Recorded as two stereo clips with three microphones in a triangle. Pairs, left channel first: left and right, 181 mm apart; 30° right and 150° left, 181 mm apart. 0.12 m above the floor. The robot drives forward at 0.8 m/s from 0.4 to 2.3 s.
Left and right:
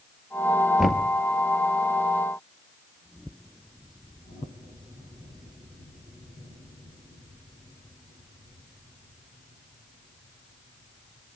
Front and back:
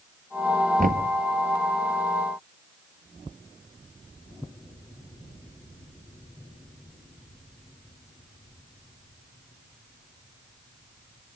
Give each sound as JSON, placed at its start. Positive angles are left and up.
{"t": 0.8, "sound": "knocking", "azimuth_deg": 180, "distance_m": 1.7}